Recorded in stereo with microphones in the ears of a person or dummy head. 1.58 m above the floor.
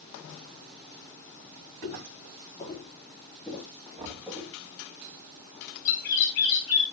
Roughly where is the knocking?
Right.